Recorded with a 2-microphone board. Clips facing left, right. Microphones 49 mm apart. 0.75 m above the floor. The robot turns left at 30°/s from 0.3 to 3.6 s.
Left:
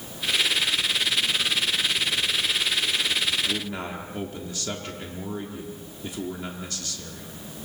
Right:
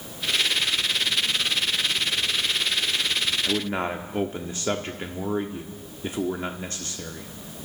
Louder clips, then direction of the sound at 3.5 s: Right 4 dB; 30° right (ahead or behind).